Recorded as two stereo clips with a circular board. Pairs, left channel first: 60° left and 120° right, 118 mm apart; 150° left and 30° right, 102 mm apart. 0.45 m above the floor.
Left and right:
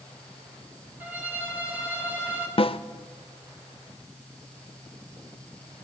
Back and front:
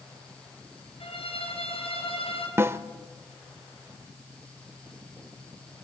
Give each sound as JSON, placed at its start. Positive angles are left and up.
{"t": 1.0, "sound": "a violin", "azimuth_deg": 165, "distance_m": 4.5}
{"t": 2.6, "sound": "a snare drum", "azimuth_deg": 35, "distance_m": 0.7}